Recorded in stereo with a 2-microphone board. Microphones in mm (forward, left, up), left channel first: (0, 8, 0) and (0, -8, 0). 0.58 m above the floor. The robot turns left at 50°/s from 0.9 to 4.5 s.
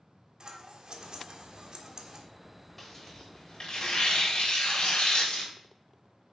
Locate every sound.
0.4 s scissors: 55° right (ahead or behind), 1.4 m; by 2.2 s 30° right (ahead or behind), 1.4 m
2.8 s tearing paper: 170° left, 3.5 m; by 5.5 s 80° left, 3.5 m